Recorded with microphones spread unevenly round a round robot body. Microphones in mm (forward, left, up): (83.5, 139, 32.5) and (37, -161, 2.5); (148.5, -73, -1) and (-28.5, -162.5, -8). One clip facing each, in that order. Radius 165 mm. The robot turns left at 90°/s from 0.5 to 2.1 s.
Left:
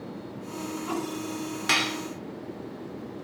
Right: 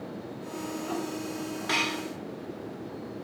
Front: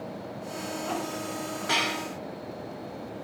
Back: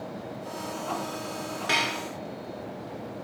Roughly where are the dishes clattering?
Behind left.